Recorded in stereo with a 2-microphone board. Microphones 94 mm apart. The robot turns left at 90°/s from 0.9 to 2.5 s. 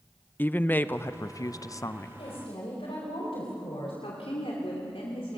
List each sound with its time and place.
0.4 s a woman speaking: 145° left, 0.5 m; by 2.2 s 35° left, 0.5 m
2.2 s a woman speaking: 80° left, 5 m; by 3.9 s 70° left (ahead or behind), 5 m
4.0 s a woman speaking: 80° left, 3 m